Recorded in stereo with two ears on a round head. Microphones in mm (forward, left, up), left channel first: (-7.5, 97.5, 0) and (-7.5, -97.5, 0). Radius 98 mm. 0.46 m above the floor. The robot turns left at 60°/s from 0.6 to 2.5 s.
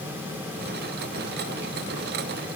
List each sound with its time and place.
Only background noise.